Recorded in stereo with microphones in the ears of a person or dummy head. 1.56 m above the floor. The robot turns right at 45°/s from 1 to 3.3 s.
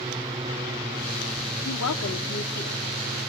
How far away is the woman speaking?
About 3.5 m.